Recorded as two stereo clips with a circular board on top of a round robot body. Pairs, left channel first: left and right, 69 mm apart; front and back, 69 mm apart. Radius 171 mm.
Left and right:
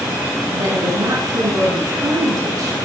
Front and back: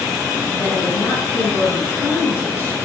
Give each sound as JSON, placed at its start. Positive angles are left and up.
{"t": 0.5, "sound": "a woman speaking", "azimuth_deg": -55, "distance_m": 6.0}